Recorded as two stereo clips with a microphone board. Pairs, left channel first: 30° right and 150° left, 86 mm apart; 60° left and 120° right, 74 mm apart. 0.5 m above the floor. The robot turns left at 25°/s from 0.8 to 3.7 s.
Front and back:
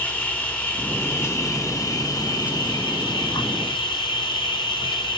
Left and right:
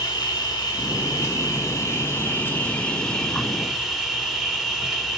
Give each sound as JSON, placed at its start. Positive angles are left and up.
{"t": 0.0, "sound": "an insect", "azimuth_deg": 40, "distance_m": 1.2}